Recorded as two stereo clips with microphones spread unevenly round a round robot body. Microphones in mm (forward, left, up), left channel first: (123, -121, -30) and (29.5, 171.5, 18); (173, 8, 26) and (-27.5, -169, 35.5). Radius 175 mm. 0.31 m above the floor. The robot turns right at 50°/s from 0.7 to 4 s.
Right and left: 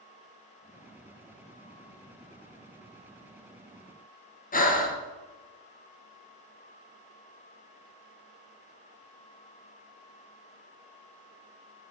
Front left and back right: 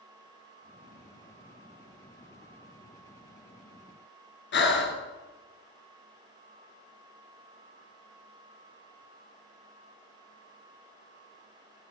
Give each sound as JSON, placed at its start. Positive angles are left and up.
{"t": 4.5, "sound": "breathing", "azimuth_deg": -5, "distance_m": 1.0}